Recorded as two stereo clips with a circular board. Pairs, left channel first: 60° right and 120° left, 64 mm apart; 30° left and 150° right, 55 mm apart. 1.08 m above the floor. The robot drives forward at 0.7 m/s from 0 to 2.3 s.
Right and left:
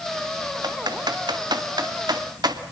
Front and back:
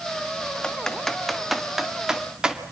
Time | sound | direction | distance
0.6 | typing on a keyboard | 105° left | 1.8 m